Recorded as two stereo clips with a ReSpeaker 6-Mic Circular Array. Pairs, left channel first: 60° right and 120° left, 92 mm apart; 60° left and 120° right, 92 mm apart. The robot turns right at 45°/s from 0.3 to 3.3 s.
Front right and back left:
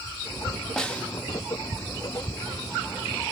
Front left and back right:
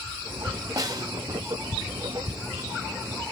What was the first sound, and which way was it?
A snare drum, 140° right.